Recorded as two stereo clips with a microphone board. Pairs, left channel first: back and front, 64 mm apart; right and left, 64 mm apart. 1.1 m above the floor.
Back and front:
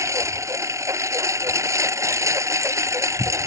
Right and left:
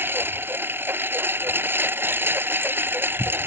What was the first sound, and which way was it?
A lawn mower, 35° left.